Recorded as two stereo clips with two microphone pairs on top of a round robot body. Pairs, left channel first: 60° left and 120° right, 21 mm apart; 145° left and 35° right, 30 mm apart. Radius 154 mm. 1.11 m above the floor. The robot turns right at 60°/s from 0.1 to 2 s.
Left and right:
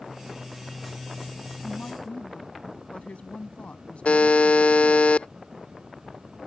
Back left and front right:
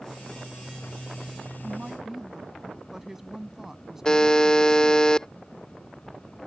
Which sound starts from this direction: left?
A buzzer, at 4.0 s.